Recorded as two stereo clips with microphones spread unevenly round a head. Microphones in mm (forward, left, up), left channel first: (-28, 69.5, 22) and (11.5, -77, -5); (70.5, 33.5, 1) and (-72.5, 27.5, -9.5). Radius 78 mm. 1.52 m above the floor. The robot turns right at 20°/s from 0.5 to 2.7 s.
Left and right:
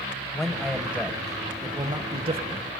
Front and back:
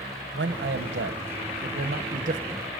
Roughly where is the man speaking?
Behind.